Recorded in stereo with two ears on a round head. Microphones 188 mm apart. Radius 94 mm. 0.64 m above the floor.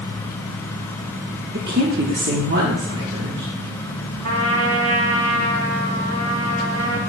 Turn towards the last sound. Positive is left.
turn(degrees=-75)  # may be behind; listen again after turning